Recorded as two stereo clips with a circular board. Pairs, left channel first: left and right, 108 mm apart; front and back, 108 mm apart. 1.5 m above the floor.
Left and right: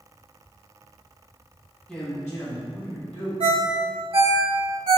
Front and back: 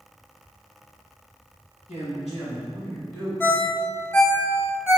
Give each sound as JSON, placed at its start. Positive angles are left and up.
{"t": 1.9, "sound": "a man speaking", "azimuth_deg": 10, "distance_m": 1.4}
{"t": 3.4, "sound": "a ringtone", "azimuth_deg": -70, "distance_m": 1.4}